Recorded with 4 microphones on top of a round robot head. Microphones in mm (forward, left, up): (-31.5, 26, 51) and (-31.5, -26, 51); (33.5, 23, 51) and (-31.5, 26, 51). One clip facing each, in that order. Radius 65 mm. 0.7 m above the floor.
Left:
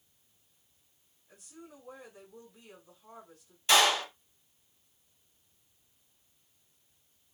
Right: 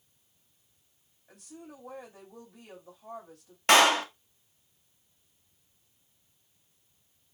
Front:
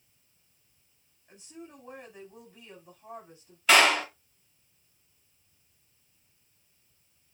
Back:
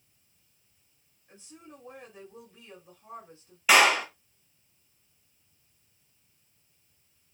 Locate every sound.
1.3 s a woman speaking: 80° right, 4.5 m
3.7 s a clap: 100° right, 1.3 m